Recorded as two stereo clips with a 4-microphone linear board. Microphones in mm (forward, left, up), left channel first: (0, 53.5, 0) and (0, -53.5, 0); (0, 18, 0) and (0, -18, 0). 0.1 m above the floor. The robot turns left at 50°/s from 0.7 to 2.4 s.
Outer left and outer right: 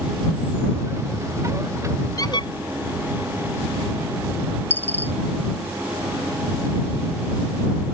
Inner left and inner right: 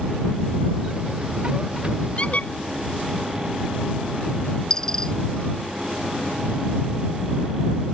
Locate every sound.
2.2 s a squeak: 35° left (ahead or behind); by 2.5 s 45° left (ahead or behind)
4.7 s a dropped coin: 20° left (ahead or behind)